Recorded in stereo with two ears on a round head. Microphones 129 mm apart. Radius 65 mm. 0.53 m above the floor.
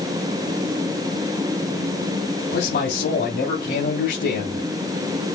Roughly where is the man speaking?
Left.